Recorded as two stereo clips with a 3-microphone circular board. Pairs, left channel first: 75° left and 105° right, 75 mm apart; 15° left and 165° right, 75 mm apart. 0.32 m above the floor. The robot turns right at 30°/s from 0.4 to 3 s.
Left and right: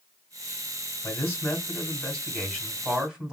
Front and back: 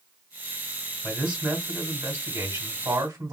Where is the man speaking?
120° left, 2 m; by 3.3 s straight behind, 2 m.